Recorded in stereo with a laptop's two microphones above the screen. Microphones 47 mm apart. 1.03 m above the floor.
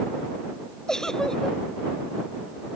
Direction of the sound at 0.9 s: 15° left (ahead or behind).